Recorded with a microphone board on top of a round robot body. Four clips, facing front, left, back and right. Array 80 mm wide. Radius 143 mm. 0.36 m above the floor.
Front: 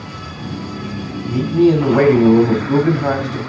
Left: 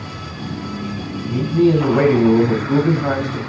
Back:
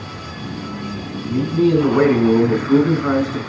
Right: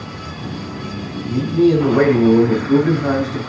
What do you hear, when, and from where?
1.3 s a man speaking: straight ahead, 4.5 m